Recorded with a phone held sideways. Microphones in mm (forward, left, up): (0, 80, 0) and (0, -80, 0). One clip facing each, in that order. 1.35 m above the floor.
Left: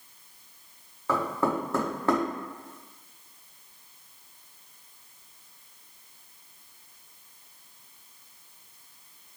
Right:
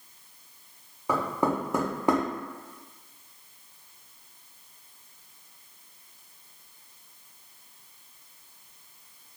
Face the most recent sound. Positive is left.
turn(degrees=-15)  # may be behind; listen again after turning